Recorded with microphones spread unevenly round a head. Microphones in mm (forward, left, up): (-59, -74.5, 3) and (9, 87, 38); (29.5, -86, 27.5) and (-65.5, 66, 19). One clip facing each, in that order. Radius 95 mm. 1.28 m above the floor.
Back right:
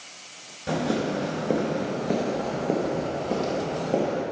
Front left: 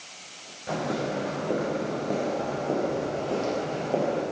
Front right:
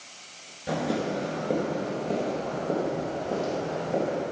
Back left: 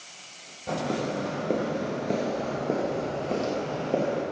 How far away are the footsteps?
About 1.3 m.